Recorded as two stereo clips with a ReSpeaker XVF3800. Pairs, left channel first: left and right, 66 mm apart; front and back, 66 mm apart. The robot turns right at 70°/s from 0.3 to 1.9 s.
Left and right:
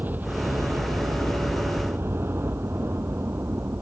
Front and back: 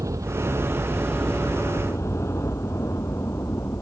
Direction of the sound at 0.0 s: 150° right.